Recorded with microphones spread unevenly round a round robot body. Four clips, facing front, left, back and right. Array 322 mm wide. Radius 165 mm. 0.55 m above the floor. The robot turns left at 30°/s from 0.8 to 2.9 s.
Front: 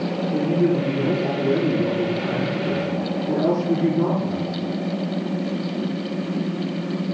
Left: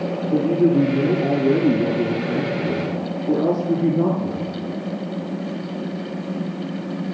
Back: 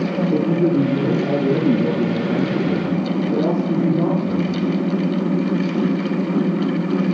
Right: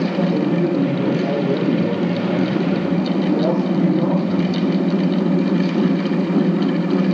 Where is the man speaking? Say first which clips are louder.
Left 6 dB, back 2 dB; 165° left, 8.5 m; by 4.6 s 105° left, 8.5 m.